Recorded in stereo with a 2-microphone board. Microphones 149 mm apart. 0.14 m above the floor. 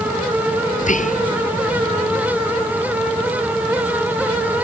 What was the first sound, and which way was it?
Whispering, 60° left (ahead or behind).